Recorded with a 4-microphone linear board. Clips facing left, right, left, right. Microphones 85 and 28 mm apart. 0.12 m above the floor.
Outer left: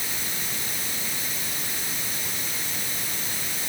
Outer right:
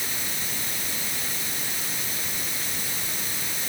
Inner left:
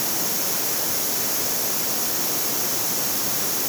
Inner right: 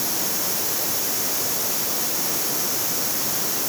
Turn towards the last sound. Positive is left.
No sound to turn to.